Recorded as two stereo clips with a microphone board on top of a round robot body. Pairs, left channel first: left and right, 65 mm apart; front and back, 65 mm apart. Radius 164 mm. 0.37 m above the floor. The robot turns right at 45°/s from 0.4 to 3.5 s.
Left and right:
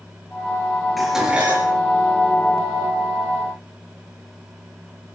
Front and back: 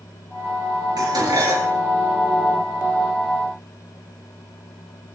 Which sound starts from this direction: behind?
Dishes clattering, at 1.0 s.